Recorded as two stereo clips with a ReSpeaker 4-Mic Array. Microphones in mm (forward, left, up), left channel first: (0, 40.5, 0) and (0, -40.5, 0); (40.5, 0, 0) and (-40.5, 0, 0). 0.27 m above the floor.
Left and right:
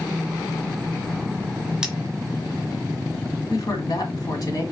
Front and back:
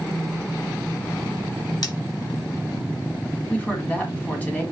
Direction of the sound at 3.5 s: 70° left.